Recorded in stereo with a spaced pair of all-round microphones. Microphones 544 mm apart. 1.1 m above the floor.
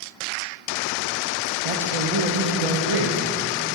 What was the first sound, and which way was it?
A man speaking, 65° right (ahead or behind).